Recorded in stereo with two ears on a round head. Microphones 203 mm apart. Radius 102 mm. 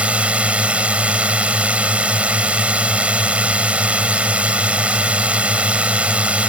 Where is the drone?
5° right (ahead or behind).